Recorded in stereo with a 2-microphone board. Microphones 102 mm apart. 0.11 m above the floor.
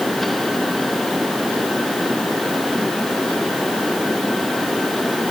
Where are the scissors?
I don't hear scissors.